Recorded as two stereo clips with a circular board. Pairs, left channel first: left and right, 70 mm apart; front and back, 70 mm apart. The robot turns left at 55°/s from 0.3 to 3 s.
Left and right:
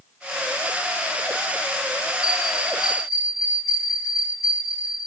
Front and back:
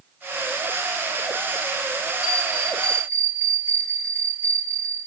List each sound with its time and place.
2.2 s a bell: 100° left, 6 m; by 5.0 s 55° left, 6 m